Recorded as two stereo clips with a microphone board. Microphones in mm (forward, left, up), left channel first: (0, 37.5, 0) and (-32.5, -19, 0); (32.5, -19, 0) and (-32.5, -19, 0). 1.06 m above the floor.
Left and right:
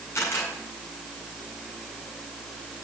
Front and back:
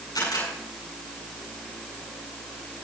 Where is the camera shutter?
10° left, 7.5 m.